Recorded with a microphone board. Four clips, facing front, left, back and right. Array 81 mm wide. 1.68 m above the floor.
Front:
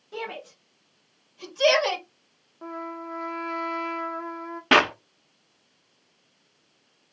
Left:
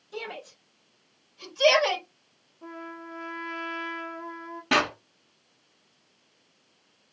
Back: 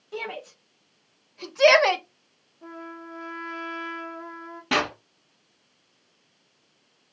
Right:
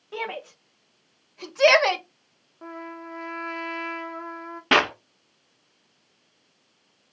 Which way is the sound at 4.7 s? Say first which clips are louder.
Right 4 dB, front 6 dB; 35° right.